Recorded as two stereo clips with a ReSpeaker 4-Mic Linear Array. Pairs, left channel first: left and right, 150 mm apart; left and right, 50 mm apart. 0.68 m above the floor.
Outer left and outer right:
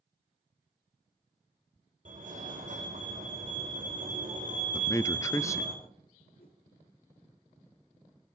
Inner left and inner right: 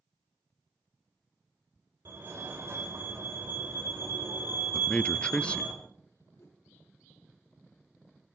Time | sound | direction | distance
2.0 | a fire alarm | 60° right (ahead or behind) | 4 m
4.7 | a man speaking | 20° left (ahead or behind) | 0.6 m
6.4 | a whoosh | 70° left (ahead or behind) | 6 m